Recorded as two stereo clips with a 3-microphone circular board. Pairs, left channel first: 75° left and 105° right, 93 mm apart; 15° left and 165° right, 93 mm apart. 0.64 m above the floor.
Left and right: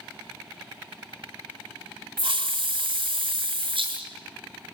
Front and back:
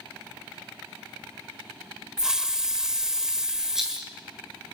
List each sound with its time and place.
2.2 s a hiss: 80° right, 1.8 m
3.8 s a rattle: 80° right, 7.5 m